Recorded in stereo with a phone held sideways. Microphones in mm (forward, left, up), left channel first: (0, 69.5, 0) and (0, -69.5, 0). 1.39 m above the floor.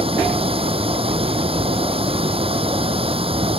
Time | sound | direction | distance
0.0 | running water | 40° right (ahead or behind) | ?